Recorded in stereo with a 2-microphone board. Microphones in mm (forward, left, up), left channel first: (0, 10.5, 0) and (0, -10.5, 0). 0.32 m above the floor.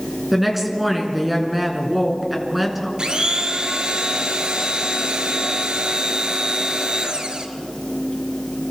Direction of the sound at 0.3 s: 5° right (ahead or behind).